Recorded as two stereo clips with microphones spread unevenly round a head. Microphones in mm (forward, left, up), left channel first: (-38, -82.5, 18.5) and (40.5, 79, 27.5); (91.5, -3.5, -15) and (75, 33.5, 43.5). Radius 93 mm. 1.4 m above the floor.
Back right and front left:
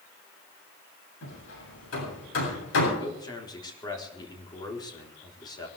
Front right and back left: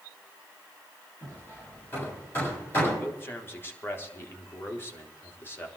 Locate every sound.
1.2 s hammering: 125° right, 8 m
3.0 s a man speaking: 45° right, 4 m